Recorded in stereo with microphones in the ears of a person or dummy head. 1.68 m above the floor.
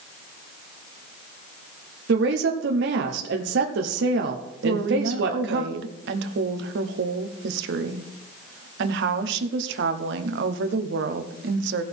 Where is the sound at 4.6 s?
70° right (ahead or behind), 0.9 m.